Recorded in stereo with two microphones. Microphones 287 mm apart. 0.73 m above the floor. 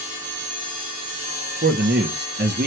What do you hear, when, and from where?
1.6 s a man speaking: 35° right (ahead or behind), 0.7 m